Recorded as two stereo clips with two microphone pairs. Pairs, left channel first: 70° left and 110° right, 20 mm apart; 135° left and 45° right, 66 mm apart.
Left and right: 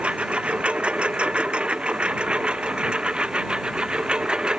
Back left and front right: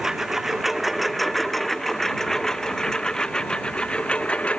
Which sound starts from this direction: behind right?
A lawn mower, at 0.0 s.